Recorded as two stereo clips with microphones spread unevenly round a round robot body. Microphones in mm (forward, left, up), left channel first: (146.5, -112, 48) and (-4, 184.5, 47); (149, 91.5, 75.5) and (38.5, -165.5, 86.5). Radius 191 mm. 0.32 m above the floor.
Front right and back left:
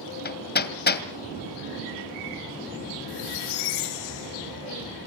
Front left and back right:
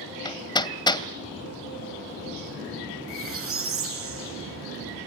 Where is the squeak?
75° right, 4 m.